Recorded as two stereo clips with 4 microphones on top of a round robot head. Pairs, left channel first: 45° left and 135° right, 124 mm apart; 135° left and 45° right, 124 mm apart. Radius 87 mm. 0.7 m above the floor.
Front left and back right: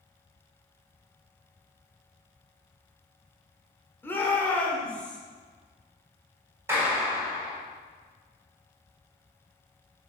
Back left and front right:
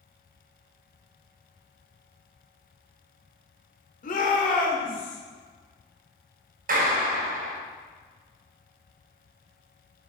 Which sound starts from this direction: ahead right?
A clap, at 6.7 s.